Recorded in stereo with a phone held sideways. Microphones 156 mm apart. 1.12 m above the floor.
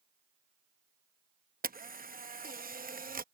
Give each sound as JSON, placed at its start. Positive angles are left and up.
{"t": 1.6, "sound": "a camera shutter", "side_deg": -65}